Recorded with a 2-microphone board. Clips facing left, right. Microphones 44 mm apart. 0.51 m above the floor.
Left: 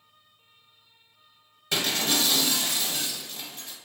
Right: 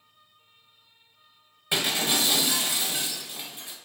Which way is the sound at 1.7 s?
20° right (ahead or behind).